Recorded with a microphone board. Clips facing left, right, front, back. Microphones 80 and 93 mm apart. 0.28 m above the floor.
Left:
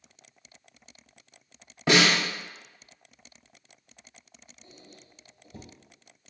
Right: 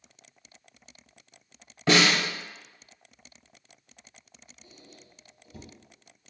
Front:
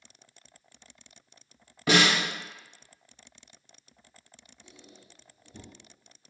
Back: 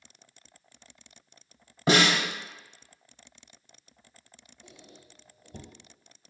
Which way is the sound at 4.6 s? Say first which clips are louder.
Left 1 dB, back 2 dB; 150° left.